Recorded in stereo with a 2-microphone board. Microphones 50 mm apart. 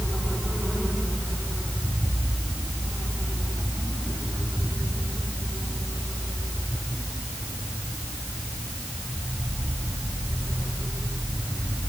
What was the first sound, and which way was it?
Only background noise.